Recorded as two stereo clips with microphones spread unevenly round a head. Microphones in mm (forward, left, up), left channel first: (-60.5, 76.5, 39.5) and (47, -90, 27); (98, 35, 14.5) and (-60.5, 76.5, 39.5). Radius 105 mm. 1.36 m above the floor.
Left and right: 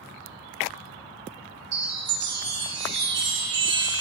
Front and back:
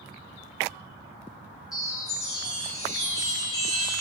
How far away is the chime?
About 3 m.